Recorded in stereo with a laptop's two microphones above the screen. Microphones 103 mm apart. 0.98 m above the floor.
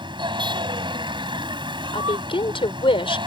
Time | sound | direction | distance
0.0 | a vehicle | 50° right (ahead or behind) | ?
1.9 | a woman speaking | 60° left (ahead or behind) | ?